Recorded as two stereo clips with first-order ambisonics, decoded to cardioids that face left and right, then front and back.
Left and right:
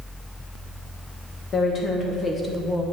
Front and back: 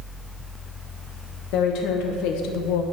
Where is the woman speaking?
30° left, 1.7 m; by 2.8 s 5° left, 0.9 m.